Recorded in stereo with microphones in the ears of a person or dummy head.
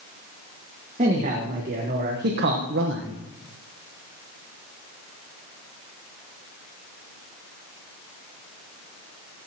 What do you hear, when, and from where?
1.0 s a man speaking: 30° right (ahead or behind), 1.7 m; by 3.2 s 60° right (ahead or behind), 1.0 m